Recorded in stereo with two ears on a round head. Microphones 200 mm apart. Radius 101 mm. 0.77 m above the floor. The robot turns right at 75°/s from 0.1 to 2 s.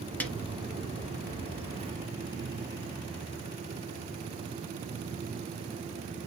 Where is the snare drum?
5° left (ahead or behind), 1.7 m; by 0.3 s centre (ahead or behind), 1.7 m.